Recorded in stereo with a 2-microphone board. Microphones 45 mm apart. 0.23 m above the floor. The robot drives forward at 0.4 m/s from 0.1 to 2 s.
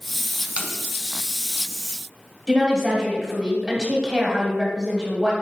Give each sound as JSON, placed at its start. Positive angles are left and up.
{"t": 0.4, "sound": "tape being pulled", "side_deg": -35, "distance_m": 0.7}
{"t": 2.5, "sound": "a woman speaking", "side_deg": -20, "distance_m": 1.1}